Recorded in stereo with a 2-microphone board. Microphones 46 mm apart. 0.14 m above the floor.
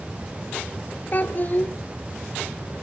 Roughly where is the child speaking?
Left.